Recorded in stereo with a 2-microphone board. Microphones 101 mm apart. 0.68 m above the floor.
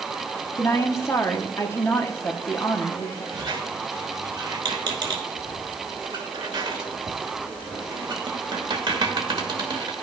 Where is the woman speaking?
25° left (ahead or behind), 1.0 m.